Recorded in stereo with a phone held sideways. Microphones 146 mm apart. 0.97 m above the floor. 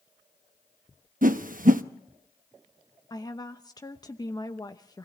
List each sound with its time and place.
1.2 s a whoosh: 70° right (ahead or behind), 0.8 m
3.1 s a woman speaking: 25° left (ahead or behind), 0.8 m